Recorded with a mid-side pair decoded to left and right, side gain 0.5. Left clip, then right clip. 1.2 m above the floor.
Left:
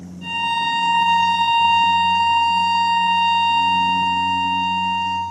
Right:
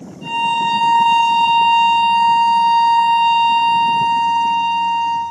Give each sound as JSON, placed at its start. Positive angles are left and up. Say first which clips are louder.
{"t": 0.2, "sound": "a violin", "louder": "right 3 dB", "azimuth_deg": 20, "distance_m": 1.0}